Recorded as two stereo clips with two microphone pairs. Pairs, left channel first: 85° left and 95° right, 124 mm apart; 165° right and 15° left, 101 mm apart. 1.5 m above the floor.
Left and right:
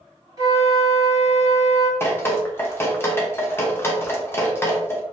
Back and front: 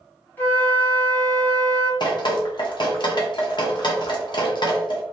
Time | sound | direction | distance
0.4 | a flute | 115° right | 1.1 m
2.0 | dripping | 155° left | 0.8 m